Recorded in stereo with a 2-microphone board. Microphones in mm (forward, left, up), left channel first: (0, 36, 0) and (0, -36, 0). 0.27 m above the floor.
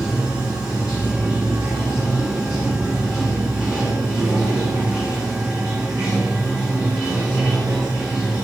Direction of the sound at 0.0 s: 5° right (ahead or behind).